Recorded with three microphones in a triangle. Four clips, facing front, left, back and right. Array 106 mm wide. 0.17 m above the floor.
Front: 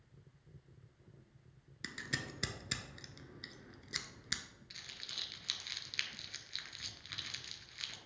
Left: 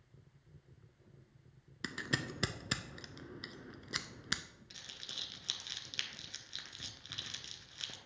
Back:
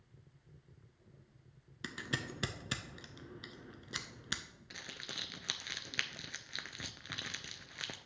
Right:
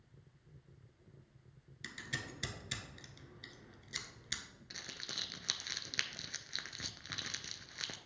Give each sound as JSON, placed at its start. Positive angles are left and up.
{"t": 1.8, "sound": "scissors", "azimuth_deg": 110, "distance_m": 0.6}
{"t": 4.7, "sound": "crumpling", "azimuth_deg": -160, "distance_m": 0.5}